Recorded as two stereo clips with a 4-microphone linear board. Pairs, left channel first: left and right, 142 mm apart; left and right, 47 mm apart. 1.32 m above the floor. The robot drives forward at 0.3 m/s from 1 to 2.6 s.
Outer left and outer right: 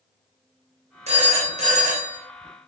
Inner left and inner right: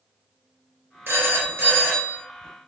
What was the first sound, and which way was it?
A phone ringing, 50° right (ahead or behind).